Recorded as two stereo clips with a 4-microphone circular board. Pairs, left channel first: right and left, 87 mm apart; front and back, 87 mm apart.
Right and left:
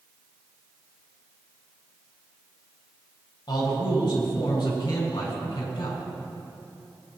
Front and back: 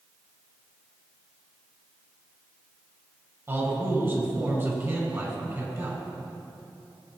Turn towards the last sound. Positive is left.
turn(degrees=-120)